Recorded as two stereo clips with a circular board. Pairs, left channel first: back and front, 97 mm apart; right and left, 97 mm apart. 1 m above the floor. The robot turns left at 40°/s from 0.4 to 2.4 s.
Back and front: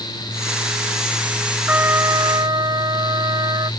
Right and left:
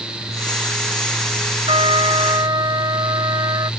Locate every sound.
1.7 s a trumpet: 75° left; by 3.7 s 45° left